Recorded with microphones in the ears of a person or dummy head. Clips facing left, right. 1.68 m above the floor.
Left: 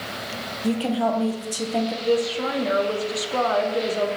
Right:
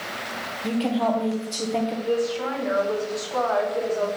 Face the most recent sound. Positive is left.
turn(degrees=50)  # may be behind; listen again after turning